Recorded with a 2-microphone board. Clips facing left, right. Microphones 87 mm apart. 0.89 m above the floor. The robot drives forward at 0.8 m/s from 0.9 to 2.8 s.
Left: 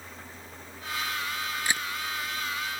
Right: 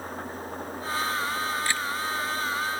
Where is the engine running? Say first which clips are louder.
Right 10 dB; 45° right (ahead or behind).